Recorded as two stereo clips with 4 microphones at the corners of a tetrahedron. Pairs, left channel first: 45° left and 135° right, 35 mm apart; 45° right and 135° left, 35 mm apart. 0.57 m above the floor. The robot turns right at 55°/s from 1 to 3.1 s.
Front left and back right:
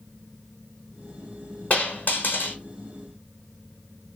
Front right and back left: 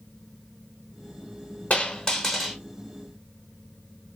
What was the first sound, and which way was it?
A dropped coin, straight ahead.